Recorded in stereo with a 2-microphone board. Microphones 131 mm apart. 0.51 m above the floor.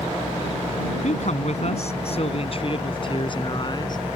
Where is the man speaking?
65° left (ahead or behind); by 4.0 s 35° left (ahead or behind).